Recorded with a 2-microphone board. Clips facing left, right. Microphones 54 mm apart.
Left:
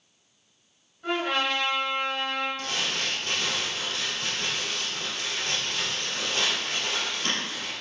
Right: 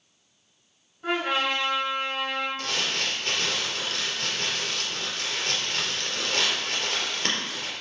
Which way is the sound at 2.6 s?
50° right (ahead or behind).